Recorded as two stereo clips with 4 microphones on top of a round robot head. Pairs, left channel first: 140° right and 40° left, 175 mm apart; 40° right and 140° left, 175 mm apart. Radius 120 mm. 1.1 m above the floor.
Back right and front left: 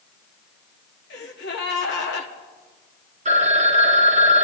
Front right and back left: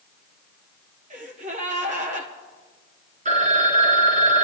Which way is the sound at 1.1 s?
165° right.